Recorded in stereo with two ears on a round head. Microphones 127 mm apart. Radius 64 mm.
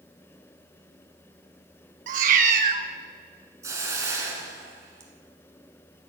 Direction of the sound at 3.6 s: 20° right (ahead or behind).